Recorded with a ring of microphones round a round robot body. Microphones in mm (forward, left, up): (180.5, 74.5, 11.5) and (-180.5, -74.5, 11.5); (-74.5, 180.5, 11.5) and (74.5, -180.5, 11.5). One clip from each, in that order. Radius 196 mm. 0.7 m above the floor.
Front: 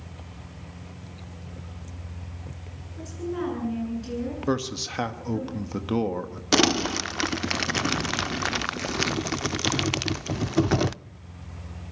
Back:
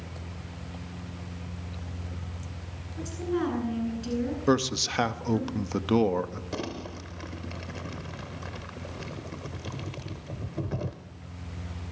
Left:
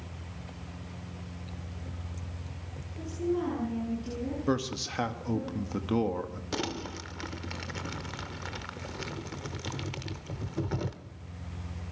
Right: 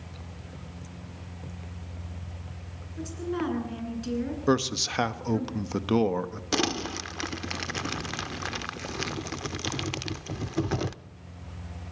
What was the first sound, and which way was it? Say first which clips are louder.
A woman speaking: back 1 dB, even; 80° right.